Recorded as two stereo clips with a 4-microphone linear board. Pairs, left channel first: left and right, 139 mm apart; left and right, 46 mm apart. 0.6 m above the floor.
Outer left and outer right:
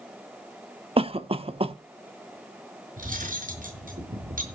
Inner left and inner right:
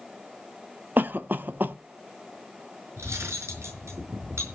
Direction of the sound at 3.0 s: 85° right.